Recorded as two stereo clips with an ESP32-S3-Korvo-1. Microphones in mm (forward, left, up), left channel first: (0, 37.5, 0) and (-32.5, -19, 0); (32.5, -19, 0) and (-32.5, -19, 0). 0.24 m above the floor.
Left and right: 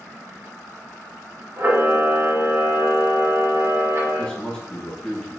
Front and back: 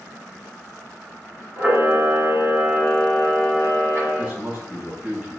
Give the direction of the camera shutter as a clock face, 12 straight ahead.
5 o'clock.